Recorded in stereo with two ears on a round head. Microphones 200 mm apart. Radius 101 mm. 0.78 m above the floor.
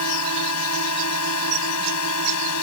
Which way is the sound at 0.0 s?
75° left (ahead or behind).